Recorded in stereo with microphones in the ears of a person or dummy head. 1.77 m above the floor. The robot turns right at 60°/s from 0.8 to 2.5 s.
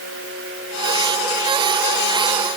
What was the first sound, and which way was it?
Only background noise.